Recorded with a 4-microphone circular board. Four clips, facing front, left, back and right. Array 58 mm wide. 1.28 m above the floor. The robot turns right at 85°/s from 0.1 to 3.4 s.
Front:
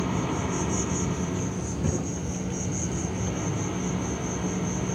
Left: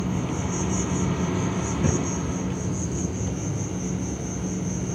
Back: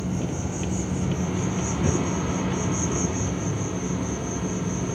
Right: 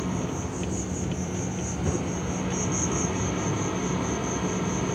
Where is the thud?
100° left, 9 m; by 2.1 s 120° left, 9 m.